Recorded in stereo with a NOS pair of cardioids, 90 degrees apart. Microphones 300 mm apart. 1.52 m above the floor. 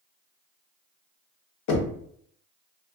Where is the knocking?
65° left, 0.8 m.